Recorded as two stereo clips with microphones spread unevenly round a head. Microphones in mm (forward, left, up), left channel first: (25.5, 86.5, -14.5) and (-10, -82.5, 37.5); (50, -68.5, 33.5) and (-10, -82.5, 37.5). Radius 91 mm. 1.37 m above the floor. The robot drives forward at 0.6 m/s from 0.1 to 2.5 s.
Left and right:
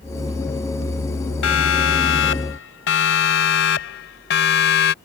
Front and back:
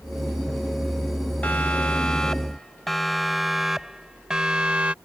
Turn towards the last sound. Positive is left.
turn(degrees=110)